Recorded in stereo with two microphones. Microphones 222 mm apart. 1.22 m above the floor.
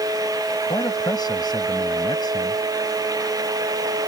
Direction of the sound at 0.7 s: 20° left (ahead or behind).